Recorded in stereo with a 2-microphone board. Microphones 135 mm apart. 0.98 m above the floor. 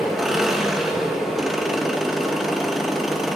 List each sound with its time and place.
0.0 s an engine running: 5° right (ahead or behind), 0.8 m